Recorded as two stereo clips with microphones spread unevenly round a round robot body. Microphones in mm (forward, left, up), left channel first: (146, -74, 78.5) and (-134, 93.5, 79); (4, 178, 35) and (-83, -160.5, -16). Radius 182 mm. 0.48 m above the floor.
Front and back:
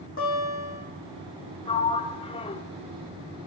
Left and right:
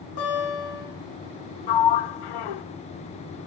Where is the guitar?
25° left, 8.5 m.